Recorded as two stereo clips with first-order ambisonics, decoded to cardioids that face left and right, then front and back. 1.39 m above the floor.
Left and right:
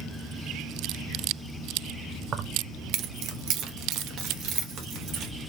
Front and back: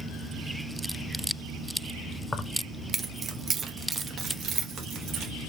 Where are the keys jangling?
65° right, 0.5 m; by 5.3 s 130° right, 1.7 m.